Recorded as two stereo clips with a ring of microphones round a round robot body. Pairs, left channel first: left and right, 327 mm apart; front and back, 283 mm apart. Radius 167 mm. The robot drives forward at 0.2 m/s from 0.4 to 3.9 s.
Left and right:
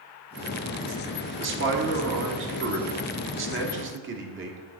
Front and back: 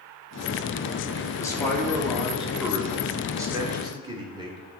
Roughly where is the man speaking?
Right.